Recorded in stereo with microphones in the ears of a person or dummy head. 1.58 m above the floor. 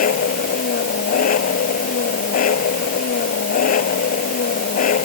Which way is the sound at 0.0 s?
50° left (ahead or behind).